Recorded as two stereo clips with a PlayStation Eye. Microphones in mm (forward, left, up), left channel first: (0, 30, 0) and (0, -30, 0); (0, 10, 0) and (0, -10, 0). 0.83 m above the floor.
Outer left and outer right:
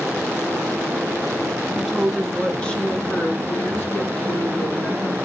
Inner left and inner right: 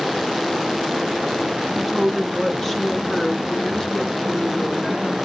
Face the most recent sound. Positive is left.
turn(degrees=60)  # may be behind; listen again after turning